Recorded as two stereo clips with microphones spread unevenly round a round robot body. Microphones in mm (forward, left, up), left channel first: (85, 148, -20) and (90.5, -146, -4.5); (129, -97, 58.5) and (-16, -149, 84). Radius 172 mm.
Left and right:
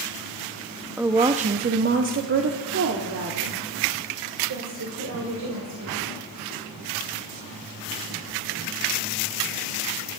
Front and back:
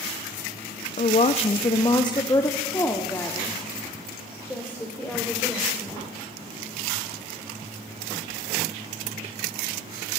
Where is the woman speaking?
Straight ahead, 0.6 m; by 6.0 s 60° right, 3 m.